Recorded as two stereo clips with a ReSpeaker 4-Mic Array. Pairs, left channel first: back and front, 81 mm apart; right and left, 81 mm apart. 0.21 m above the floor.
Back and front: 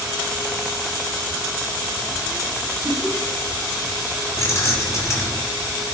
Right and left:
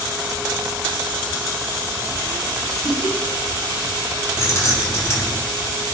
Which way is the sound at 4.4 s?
140° right.